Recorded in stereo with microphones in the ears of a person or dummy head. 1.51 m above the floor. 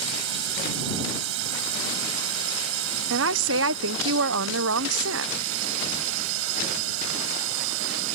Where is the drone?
70° right (ahead or behind); by 8.2 s 75° right (ahead or behind).